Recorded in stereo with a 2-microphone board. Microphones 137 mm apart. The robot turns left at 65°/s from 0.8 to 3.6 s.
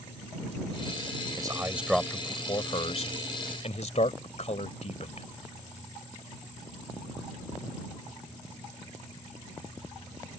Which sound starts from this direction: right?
A man speaking, at 1.4 s.